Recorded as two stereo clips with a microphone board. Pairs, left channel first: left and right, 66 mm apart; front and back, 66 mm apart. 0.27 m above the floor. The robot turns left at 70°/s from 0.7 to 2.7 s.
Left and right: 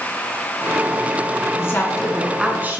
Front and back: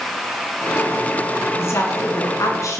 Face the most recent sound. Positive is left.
turn(degrees=-30)